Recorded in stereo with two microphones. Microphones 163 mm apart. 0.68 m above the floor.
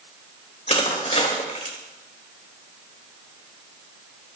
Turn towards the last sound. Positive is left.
turn(degrees=45)  # may be behind; listen again after turning